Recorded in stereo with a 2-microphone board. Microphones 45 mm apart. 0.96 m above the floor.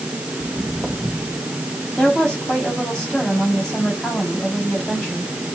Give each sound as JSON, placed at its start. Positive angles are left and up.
{"t": 0.4, "sound": "footsteps", "side_deg": -25, "distance_m": 3.0}
{"t": 2.0, "sound": "a woman speaking", "side_deg": 25, "distance_m": 7.0}